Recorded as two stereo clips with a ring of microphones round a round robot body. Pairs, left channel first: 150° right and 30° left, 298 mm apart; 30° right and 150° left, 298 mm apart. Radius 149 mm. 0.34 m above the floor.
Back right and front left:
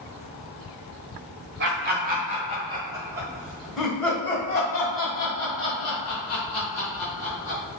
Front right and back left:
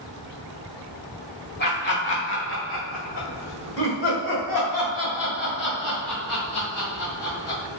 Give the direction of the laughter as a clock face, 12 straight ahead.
12 o'clock.